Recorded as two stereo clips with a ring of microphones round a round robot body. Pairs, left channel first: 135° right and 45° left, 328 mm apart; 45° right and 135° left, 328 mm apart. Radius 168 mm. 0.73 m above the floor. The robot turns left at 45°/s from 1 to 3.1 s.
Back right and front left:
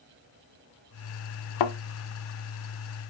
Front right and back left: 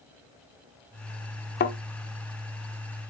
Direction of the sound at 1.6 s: 110° right.